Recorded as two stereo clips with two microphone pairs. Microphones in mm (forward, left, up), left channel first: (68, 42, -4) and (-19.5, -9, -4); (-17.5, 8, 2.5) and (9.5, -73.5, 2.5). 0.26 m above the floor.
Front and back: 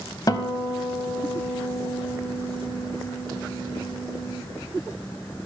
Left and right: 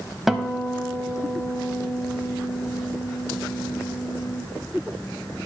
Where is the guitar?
10° left, 0.7 m.